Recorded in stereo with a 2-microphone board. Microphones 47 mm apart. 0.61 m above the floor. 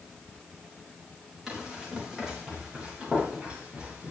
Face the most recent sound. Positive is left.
turn(degrees=-20)  # may be behind; listen again after turning